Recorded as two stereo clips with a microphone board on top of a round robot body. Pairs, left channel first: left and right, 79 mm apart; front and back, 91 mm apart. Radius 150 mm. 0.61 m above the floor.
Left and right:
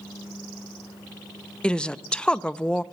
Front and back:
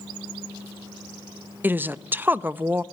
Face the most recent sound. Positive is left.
turn(degrees=150)